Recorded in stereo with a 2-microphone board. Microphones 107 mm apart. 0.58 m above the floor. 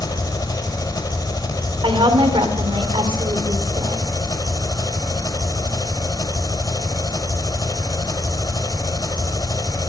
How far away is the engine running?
About 1.2 m.